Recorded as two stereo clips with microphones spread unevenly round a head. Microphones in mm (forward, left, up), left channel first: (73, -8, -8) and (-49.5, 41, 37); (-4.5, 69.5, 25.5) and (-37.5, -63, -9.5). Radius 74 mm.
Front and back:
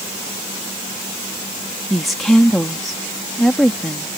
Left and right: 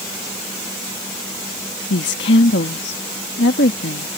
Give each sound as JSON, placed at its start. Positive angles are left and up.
{"t": 1.9, "sound": "a woman speaking", "azimuth_deg": 70}